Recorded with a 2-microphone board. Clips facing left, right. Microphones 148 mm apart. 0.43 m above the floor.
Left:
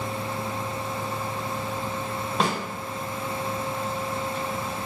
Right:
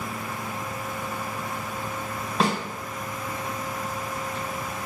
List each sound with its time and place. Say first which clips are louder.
2.4 s a snare drum: right 2 dB; centre (ahead or behind), 1.4 m